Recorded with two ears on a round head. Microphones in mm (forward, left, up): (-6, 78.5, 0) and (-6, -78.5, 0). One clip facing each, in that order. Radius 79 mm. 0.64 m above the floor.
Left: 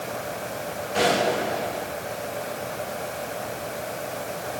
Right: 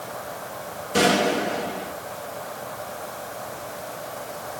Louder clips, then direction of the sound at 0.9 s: Right 2 dB; 60° right (ahead or behind).